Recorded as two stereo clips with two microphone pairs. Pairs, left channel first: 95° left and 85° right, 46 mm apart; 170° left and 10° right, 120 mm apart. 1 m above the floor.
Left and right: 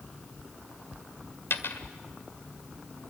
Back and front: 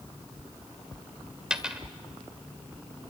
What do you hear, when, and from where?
1.5 s a dropped coin: 70° left, 1.7 m